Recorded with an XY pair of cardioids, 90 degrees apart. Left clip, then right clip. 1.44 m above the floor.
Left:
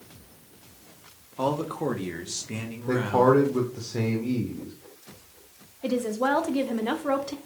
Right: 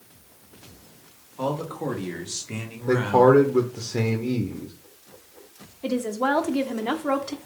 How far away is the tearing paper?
No tearing paper in this recording.